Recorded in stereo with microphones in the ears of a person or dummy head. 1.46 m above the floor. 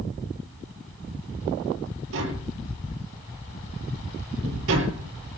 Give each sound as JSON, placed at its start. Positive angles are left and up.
{"t": 2.1, "sound": "tapping", "side_deg": -80, "distance_m": 7.0}